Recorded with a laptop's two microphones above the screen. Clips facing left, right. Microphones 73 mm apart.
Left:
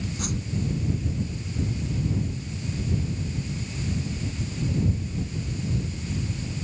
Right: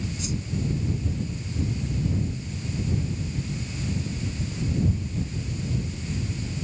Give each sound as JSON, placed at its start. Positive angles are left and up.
{"t": 0.2, "sound": "a whoosh", "side_deg": 55}